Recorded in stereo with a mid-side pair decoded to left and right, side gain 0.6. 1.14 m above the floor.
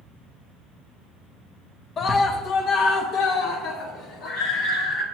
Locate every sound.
2.0 s a scream: 40° left, 0.7 m; by 5.0 s 75° left, 2.5 m